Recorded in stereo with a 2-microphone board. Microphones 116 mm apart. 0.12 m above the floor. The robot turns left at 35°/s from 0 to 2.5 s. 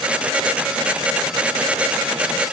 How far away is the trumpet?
I don't hear a trumpet.